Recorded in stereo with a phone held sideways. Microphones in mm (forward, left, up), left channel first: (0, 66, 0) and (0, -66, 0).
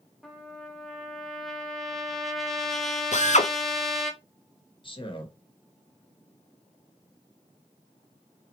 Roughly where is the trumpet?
Centre.